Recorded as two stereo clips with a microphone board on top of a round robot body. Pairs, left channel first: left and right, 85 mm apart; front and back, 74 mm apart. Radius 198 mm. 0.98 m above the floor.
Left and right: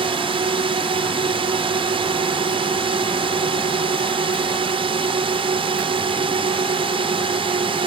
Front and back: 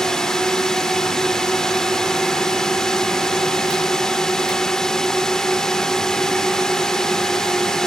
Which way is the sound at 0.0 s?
80° right.